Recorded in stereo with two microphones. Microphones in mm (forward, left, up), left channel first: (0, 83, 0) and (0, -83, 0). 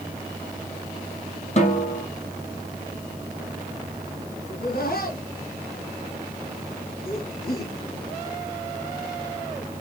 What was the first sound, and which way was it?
A snare drum, 45° left (ahead or behind).